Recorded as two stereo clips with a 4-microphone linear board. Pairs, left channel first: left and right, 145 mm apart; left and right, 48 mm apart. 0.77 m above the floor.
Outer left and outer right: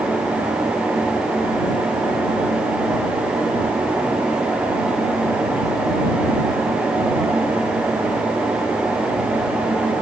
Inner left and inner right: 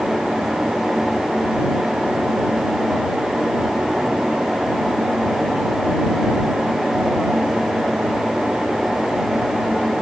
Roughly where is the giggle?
No giggle in this recording.